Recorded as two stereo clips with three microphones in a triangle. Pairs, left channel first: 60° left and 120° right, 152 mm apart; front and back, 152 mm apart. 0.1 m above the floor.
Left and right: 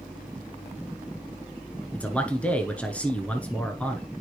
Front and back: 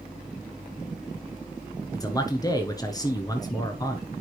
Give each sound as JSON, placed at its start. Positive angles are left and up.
{"t": 1.9, "sound": "a man speaking", "azimuth_deg": -10, "distance_m": 1.3}